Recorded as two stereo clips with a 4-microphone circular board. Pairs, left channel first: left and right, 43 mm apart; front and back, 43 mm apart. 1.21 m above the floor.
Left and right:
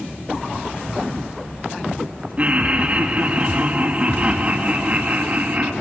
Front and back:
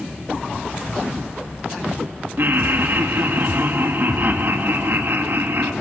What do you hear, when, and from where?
2.4 s laughter: 145° right, 2.5 m